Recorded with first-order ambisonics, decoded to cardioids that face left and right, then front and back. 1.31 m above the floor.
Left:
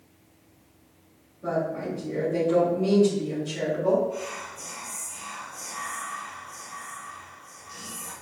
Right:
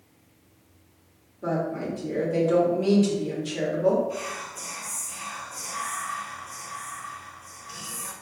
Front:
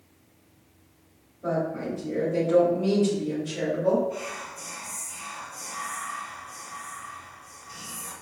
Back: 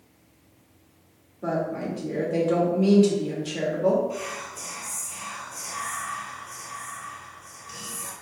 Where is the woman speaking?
145° right, 1.9 m.